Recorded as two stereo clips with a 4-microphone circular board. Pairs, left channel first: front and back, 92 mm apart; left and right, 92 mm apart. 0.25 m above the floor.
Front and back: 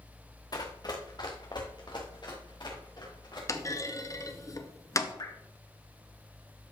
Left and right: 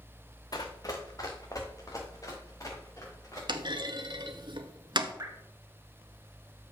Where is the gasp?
No gasp in this recording.